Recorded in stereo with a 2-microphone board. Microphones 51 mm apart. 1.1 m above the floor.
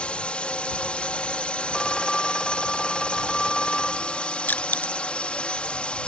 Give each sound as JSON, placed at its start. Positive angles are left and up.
{"t": 0.0, "sound": "a drone", "side_deg": 25}
{"t": 1.7, "sound": "a phone ringing", "side_deg": 15}
{"t": 4.5, "sound": "crushing", "side_deg": 40}